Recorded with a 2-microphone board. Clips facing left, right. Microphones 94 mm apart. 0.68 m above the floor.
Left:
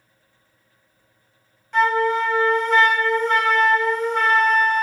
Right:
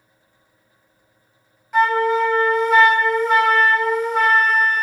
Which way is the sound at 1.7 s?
10° right (ahead or behind).